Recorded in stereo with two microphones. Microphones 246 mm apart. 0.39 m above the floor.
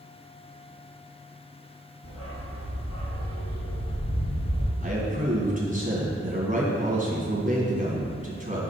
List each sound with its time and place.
2.0 s a dog barking: 75° left (ahead or behind), 3 m; by 4.7 s 85° left, 4.5 m
4.8 s a man speaking: 30° right (ahead or behind), 3 m